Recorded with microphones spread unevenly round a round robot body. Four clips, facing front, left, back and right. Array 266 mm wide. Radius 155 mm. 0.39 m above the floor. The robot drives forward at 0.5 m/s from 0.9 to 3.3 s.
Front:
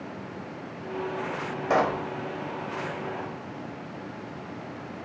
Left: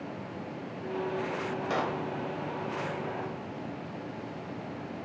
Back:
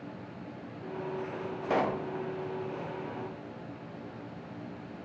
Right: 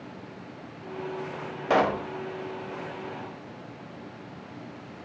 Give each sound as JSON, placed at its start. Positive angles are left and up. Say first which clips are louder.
{"t": 1.7, "sound": "a pop", "louder": "right 10 dB, front 5 dB", "azimuth_deg": -45, "distance_m": 0.8}